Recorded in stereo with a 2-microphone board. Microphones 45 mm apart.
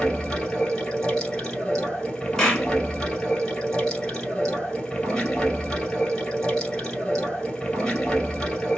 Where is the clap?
10° left (ahead or behind), 1.7 m.